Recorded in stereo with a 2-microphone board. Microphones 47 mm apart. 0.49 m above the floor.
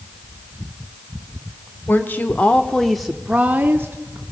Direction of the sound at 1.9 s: 50° left (ahead or behind).